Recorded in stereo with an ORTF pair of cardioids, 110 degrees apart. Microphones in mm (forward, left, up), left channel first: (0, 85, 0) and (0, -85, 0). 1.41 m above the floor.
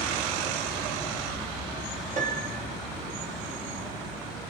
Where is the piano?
50° right, 3.5 m.